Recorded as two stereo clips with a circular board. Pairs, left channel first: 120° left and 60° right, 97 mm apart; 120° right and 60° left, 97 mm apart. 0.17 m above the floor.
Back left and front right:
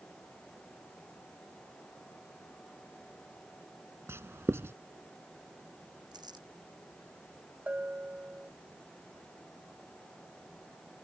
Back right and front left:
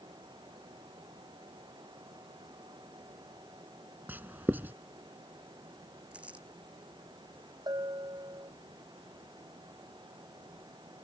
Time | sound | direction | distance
4.1 | writing | 5° right | ?
6.1 | crumpling | 15° right | ?
7.7 | a bell | 15° left | ?